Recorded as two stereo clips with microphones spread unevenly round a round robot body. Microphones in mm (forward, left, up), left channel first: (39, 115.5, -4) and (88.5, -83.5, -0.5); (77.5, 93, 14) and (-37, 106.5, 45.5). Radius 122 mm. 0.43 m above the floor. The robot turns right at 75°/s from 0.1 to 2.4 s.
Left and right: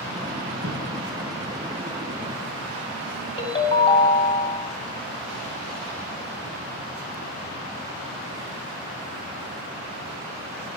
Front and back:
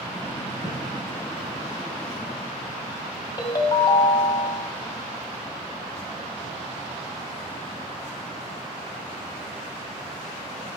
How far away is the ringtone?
About 2 m.